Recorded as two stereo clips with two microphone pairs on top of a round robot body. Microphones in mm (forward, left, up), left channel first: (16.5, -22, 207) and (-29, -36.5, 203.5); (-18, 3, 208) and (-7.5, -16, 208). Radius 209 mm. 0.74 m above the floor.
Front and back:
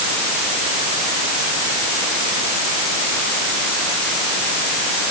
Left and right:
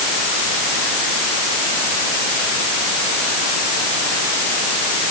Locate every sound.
Only background noise.